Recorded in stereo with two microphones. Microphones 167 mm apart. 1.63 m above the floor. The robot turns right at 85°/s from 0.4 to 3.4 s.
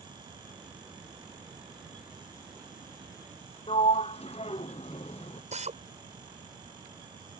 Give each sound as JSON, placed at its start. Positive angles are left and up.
{"t": 3.7, "sound": "a sliding door", "side_deg": 35}
{"t": 5.5, "sound": "a drill", "side_deg": -40}